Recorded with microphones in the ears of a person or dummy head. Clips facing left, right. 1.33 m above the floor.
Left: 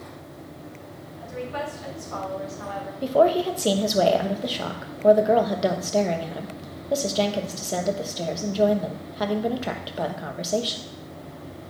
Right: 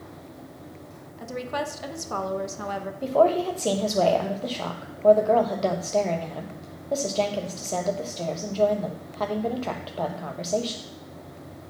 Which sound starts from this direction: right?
A woman speaking, at 1.2 s.